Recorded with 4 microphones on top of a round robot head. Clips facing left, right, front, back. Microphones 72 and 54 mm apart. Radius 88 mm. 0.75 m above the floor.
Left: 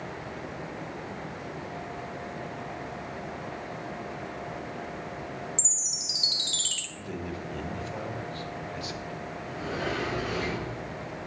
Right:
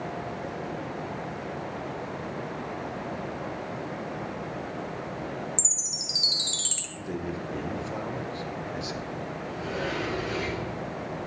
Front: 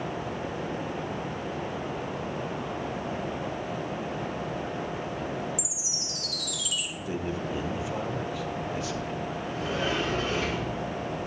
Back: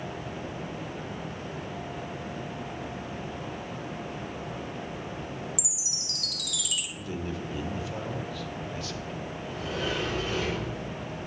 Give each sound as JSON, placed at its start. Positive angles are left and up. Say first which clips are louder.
{"t": 5.6, "sound": "a chime", "louder": "right 3 dB, front 4 dB", "azimuth_deg": -155, "distance_m": 1.0}
{"t": 7.0, "sound": "a man speaking", "louder": "right 4 dB, front 3 dB", "azimuth_deg": -55, "distance_m": 1.0}
{"t": 9.4, "sound": "a sliding door", "louder": "even, front 2 dB", "azimuth_deg": 45, "distance_m": 4.0}